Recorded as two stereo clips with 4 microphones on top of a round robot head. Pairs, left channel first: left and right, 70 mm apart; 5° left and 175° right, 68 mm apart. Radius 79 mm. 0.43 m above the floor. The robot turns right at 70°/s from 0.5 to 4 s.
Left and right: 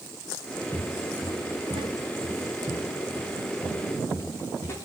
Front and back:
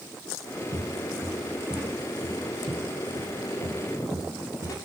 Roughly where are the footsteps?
Behind.